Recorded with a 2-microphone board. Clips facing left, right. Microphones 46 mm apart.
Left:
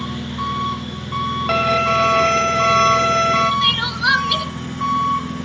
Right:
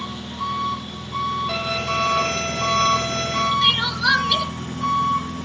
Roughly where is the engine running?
Left.